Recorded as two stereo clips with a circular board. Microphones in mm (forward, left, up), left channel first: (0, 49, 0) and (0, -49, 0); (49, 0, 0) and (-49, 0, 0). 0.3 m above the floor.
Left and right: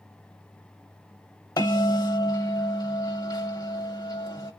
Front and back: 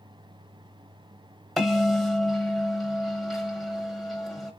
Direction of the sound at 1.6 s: 90° left.